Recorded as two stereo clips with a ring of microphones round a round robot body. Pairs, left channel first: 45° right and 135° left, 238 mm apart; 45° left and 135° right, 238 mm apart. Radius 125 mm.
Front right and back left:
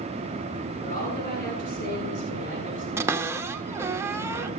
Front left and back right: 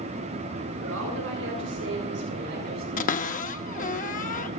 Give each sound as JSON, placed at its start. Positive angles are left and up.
{"t": 0.8, "sound": "a woman speaking", "azimuth_deg": -105, "distance_m": 8.5}
{"t": 3.0, "sound": "a cupboard door", "azimuth_deg": 65, "distance_m": 0.8}